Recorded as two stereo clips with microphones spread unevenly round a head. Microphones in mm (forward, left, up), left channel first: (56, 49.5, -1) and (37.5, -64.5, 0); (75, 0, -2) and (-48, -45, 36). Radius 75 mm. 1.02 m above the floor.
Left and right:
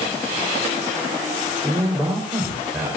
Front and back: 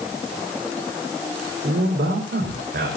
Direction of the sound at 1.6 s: 175° left.